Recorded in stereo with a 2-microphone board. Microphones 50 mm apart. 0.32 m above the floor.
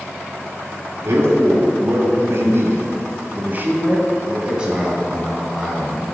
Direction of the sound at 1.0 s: 60° right (ahead or behind).